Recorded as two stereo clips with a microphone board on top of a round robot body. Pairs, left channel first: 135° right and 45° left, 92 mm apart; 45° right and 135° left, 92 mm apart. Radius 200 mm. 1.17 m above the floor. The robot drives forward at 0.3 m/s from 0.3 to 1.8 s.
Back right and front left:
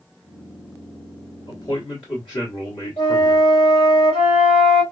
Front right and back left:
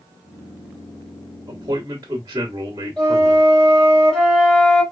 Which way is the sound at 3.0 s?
130° right.